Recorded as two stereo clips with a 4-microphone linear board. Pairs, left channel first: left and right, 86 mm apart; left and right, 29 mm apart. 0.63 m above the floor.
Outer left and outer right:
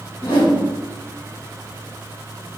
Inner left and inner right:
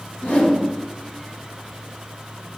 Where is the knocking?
I don't hear knocking.